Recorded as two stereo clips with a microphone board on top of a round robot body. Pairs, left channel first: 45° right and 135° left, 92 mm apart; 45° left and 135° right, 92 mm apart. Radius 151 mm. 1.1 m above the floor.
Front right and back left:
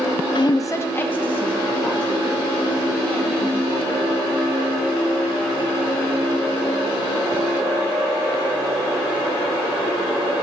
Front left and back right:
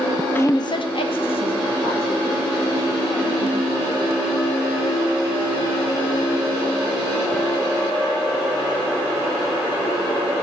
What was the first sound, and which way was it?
A woman speaking, 25° right.